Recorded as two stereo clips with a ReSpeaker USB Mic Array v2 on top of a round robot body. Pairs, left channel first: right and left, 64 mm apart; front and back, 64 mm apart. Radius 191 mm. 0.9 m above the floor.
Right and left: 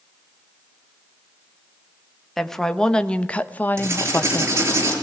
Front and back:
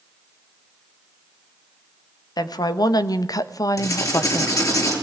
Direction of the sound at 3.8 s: 35° left.